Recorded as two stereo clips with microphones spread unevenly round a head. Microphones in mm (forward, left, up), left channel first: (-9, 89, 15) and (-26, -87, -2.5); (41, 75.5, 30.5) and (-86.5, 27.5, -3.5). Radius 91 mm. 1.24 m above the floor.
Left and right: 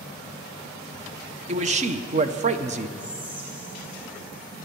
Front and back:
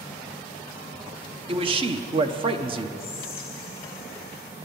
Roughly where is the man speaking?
Behind right.